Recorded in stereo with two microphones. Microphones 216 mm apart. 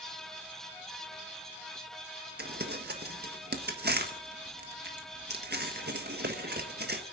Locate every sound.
2.4 s crumpling: 50° right (ahead or behind), 1.3 m